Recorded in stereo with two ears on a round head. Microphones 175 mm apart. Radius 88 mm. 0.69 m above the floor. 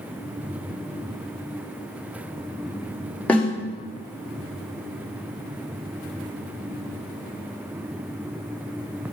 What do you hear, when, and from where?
3.3 s a snare drum: 5° left (ahead or behind), 1.9 m